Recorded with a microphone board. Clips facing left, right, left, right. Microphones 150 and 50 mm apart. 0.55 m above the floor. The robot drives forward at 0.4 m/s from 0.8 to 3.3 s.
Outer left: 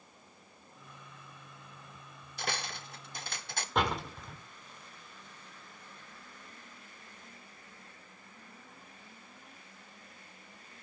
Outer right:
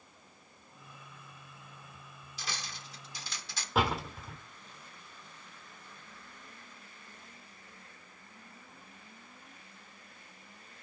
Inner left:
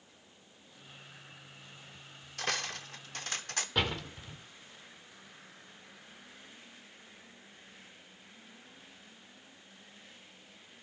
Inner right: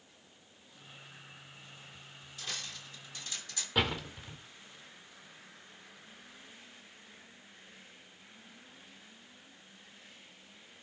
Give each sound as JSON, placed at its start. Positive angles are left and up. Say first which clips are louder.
{"t": 2.4, "sound": "cutlery clinking", "louder": "outer left 6 dB, inner left 8 dB", "side_deg": 60, "distance_m": 0.8}
{"t": 3.8, "sound": "a door slam", "louder": "outer right 1 dB, inner right 2 dB", "side_deg": -5, "distance_m": 1.4}